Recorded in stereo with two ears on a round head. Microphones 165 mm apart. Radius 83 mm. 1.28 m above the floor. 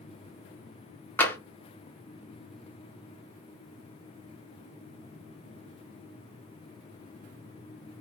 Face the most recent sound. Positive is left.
turn(degrees=10)  # may be behind; listen again after turning